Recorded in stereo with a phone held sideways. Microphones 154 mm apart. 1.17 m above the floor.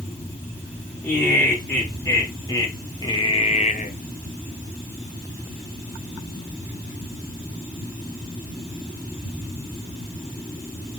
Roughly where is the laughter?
Centre.